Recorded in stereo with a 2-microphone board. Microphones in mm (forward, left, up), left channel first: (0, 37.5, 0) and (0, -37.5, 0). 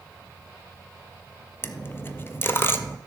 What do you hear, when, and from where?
1.6 s a dropped coin: 30° left (ahead or behind), 0.7 m